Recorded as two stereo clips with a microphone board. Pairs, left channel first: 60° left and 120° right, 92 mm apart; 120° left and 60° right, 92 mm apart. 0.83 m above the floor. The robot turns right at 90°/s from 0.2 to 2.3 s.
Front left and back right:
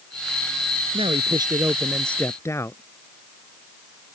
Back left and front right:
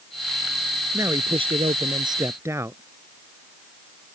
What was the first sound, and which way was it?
A man speaking, 125° right.